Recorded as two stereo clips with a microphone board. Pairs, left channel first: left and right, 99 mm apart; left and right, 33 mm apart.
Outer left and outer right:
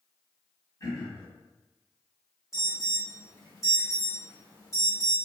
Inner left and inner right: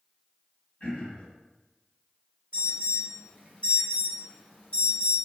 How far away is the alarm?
About 1.8 m.